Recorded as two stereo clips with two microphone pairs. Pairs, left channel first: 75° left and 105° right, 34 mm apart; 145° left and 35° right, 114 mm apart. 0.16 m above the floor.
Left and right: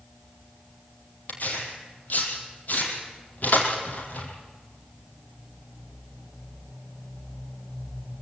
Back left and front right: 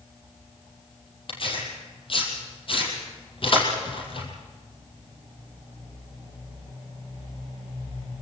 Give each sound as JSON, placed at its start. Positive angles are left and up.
{"t": 1.3, "sound": "tearing paper", "azimuth_deg": 110, "distance_m": 5.0}